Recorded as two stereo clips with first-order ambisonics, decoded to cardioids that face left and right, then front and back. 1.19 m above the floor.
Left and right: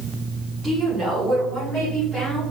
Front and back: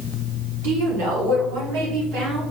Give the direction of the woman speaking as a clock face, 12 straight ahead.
6 o'clock.